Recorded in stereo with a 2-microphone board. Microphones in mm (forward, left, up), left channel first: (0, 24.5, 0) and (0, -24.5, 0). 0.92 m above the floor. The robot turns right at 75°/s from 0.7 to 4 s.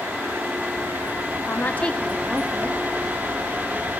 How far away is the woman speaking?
About 1.2 m.